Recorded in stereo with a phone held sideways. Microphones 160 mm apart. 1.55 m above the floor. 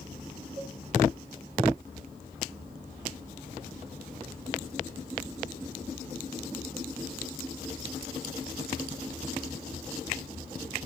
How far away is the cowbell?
About 3.5 m.